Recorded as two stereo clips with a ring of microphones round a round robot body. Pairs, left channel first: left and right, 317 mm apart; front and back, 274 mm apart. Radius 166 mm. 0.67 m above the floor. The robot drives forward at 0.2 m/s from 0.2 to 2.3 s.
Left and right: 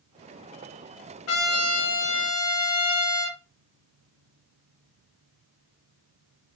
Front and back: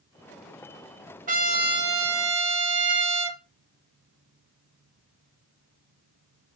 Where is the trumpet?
125° left, 0.7 m; by 3.4 s 135° left, 0.8 m.